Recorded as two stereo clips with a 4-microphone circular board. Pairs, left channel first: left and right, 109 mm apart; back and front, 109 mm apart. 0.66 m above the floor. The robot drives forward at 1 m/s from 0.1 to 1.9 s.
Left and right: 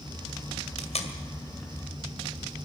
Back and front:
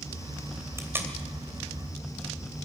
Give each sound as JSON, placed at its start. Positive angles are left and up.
{"t": 0.8, "sound": "tape being pulled", "azimuth_deg": 65, "distance_m": 2.5}